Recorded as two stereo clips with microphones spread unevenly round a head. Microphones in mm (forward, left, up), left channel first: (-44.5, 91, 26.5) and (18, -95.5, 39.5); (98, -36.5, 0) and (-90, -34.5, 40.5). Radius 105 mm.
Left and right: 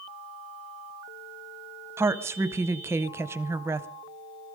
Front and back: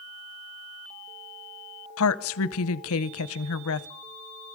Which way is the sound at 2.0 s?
5° left.